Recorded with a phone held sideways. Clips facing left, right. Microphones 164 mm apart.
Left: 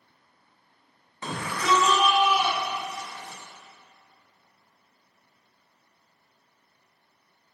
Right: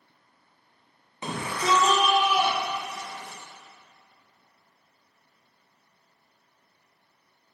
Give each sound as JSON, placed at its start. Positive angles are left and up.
{"t": 1.2, "sound": "a shout", "side_deg": -15, "distance_m": 1.3}